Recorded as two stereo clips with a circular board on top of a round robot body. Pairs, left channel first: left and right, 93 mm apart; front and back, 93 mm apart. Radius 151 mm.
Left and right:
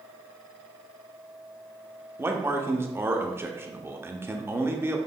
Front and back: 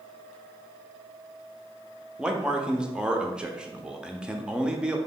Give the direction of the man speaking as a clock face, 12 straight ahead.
4 o'clock.